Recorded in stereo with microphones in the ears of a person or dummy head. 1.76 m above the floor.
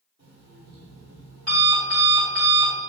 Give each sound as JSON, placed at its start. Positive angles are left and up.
{"t": 0.2, "sound": "an alarm clock", "side_deg": -45, "distance_m": 1.4}